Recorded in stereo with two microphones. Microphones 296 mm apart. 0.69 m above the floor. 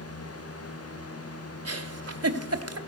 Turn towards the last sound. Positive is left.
turn(degrees=-55)  # may be behind; listen again after turning